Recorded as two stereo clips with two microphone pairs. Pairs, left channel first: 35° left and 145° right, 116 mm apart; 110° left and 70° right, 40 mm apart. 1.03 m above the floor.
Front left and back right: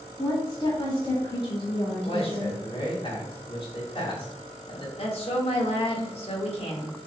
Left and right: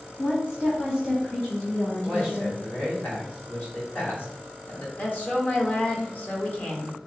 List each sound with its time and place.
0.2 s a woman speaking: 80° left, 2.0 m; by 2.6 s 65° left, 3.5 m
2.0 s a man speaking: 70° left, 2.5 m
5.0 s a woman speaking: 55° left, 1.3 m